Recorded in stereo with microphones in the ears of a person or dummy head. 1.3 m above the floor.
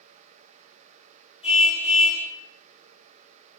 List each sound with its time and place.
1.4 s a car horn: 45° left (ahead or behind), 6 m